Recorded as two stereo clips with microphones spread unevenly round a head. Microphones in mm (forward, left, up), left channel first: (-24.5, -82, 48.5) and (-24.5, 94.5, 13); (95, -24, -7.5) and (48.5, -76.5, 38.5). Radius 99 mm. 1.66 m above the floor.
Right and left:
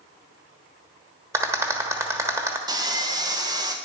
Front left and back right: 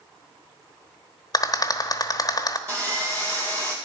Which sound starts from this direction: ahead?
A rattle, at 1.3 s.